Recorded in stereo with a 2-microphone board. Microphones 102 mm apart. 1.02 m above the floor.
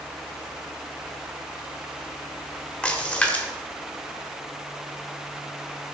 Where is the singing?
No singing in this recording.